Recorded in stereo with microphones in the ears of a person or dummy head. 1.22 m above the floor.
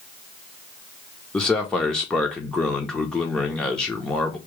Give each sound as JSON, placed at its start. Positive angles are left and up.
{"t": 1.3, "sound": "a man speaking", "side_deg": 0, "distance_m": 0.7}